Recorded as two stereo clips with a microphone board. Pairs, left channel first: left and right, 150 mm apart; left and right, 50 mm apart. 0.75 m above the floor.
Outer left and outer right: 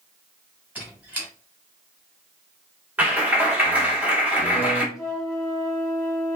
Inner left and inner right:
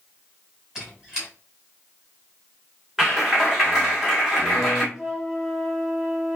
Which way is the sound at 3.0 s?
10° right (ahead or behind).